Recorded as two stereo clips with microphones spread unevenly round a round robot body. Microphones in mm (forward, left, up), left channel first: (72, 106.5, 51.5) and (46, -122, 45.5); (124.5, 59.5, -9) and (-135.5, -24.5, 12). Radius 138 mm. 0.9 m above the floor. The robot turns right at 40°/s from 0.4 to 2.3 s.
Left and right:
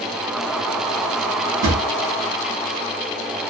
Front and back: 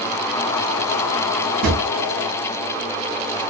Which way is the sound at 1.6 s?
110° right.